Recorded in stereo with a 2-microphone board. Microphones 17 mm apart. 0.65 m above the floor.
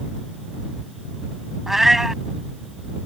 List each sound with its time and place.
1.7 s a cat meowing: 25° right (ahead or behind)